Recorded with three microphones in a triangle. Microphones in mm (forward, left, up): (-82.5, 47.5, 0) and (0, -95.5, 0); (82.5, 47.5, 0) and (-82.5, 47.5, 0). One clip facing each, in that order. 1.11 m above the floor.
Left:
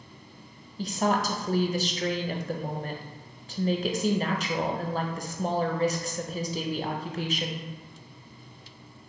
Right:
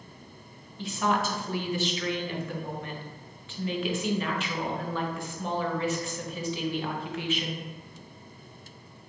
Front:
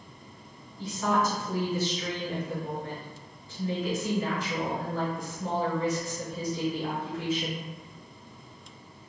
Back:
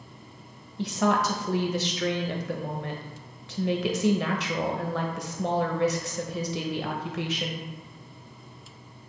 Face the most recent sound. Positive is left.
turn(degrees=175)